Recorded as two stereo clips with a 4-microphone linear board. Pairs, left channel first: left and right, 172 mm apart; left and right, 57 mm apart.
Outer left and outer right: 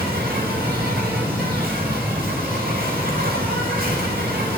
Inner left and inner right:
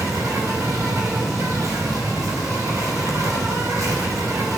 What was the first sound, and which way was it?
An insect, 65° right (ahead or behind).